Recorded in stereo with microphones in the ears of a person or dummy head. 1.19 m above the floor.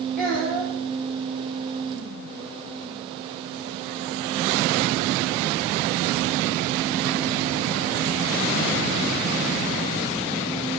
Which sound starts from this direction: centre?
A child speaking, at 0.2 s.